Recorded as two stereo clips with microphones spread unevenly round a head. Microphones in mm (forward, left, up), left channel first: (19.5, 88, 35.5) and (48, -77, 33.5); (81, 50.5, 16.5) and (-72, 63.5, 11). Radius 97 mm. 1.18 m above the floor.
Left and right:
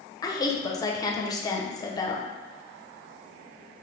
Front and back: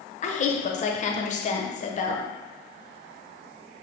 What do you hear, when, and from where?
0.2 s a woman speaking: 30° left, 0.6 m